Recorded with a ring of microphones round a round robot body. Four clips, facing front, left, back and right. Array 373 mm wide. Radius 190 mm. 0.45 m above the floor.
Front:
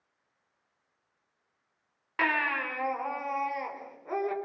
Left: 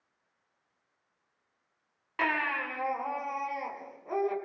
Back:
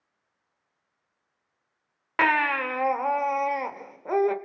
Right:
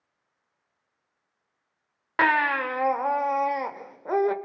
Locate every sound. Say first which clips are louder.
2.2 s a baby crying: right 9 dB, back 6 dB; 125° right, 1.3 m